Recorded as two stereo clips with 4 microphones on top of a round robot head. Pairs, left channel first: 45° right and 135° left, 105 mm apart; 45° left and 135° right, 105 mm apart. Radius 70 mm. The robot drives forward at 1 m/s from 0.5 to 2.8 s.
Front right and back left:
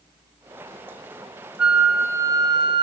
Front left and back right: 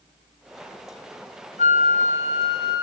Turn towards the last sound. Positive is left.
turn(degrees=95)